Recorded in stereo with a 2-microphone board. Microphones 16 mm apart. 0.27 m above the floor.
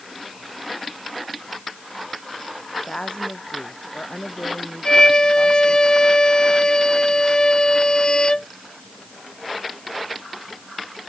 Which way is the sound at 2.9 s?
70° left (ahead or behind).